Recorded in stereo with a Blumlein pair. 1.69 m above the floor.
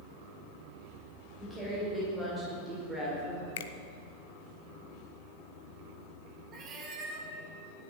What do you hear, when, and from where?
1.4 s a woman speaking: 10° right, 7 m; by 3.5 s 15° right, 4.5 m
3.6 s a finger snap: 55° left, 1.0 m
6.5 s a cat meowing: 30° right, 3 m